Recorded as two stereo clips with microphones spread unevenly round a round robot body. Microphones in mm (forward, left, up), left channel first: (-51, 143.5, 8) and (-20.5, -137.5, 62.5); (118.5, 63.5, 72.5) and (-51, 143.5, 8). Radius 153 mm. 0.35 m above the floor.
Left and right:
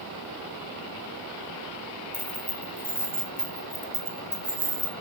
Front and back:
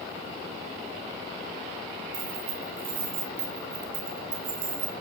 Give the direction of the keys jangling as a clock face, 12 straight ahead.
6 o'clock.